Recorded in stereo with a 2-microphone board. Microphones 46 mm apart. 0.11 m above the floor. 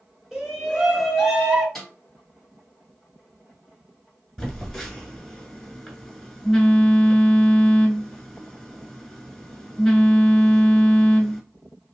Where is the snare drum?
5° left (ahead or behind), 2 m.